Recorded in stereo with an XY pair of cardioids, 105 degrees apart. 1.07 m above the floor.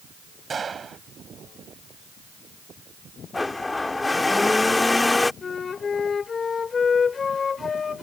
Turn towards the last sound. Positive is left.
turn(degrees=40)